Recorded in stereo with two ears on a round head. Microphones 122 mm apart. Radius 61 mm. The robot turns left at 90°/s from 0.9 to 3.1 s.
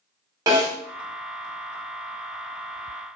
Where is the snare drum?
25° right (ahead or behind), 1.7 m.